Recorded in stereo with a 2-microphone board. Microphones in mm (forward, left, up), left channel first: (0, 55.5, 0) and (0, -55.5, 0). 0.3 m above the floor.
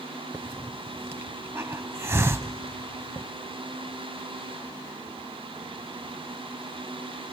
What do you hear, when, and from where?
0.3 s a hiss: 25° right (ahead or behind), 0.5 m